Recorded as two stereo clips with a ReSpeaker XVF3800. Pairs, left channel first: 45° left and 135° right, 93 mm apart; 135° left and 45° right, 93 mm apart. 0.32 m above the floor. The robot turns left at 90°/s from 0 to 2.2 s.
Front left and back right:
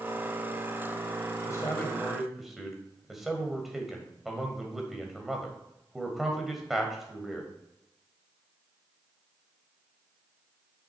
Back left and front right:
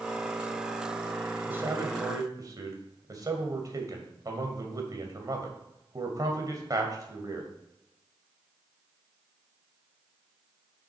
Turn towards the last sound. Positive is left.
turn(degrees=-50)